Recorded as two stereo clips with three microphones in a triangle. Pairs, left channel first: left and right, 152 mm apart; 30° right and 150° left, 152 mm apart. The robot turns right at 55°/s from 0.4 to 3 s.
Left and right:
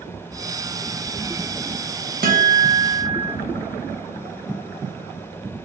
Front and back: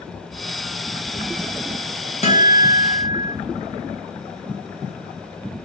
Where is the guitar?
75° right, 0.7 m; by 3.3 s 35° right, 0.7 m.